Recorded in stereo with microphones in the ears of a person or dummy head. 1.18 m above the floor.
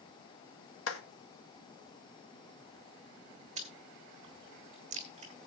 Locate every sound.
0.9 s a clap: 85° left, 1.8 m
3.6 s chewing: 40° right (ahead or behind), 2.5 m